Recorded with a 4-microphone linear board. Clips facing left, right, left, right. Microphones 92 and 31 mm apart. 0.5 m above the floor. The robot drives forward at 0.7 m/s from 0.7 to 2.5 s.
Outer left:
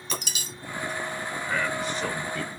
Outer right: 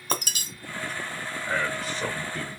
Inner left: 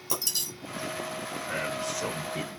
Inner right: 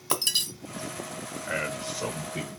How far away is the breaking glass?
About 1.1 m.